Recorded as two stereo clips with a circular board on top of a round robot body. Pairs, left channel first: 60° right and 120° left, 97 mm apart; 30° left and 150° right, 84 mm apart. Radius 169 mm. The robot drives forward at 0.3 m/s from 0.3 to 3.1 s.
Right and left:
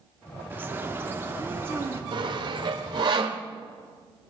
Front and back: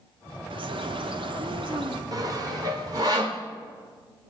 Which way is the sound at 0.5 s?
170° right.